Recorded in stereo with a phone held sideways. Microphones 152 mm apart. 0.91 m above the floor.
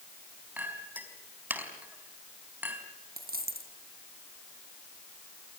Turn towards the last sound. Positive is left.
turn(degrees=-80)